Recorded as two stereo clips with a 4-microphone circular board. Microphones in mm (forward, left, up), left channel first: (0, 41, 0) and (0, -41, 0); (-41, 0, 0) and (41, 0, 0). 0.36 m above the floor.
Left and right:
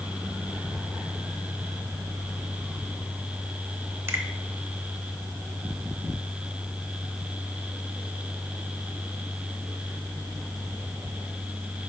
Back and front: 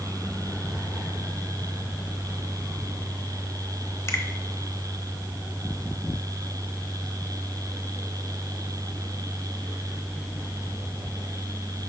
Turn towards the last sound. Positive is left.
turn(degrees=-135)